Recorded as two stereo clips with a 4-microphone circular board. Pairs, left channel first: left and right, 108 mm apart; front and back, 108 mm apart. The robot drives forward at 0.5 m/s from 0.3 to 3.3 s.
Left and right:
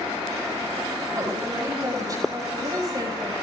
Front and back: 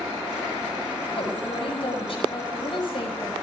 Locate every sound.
1.2 s a woman speaking: 30° right, 6.5 m; by 3.3 s 40° right, 6 m